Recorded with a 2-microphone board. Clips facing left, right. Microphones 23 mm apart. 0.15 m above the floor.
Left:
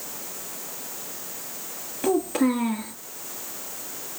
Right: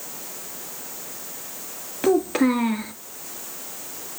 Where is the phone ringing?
No phone ringing in this recording.